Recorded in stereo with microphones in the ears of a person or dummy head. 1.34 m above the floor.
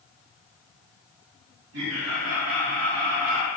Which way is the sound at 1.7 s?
70° right (ahead or behind).